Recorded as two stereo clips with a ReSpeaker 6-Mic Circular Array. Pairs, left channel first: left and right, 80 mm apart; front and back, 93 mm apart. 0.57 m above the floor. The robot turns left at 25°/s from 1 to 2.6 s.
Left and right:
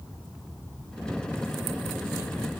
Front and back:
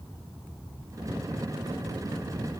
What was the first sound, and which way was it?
Only background noise.